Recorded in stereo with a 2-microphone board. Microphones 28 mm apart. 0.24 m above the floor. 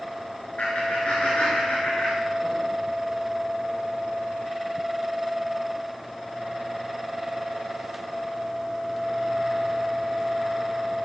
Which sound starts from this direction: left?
Laughter, at 0.6 s.